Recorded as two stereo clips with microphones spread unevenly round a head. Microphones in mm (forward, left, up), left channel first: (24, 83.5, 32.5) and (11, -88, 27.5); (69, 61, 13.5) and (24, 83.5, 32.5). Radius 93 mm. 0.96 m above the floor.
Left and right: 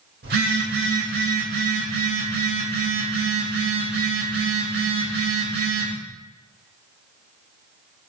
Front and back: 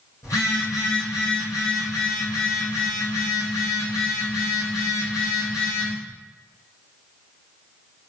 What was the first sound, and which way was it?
A phone buzzing, 65° right.